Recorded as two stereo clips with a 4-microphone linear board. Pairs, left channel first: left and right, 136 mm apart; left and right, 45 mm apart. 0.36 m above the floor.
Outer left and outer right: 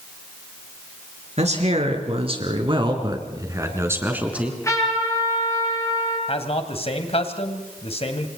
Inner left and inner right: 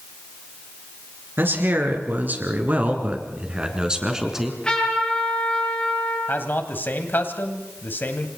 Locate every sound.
1.4 s a man speaking: 55° right (ahead or behind), 4.5 m; by 4.6 s 5° right (ahead or behind), 3.5 m
4.3 s a trumpet: 20° left (ahead or behind), 9.5 m
6.3 s a man speaking: 45° left (ahead or behind), 2.5 m